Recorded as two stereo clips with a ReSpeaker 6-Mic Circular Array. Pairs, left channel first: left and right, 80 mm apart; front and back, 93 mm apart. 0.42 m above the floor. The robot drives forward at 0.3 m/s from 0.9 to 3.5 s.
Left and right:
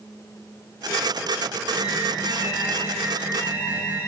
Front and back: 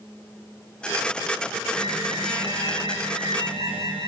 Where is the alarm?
155° right, 9 m; by 4.1 s 160° right, 9.5 m.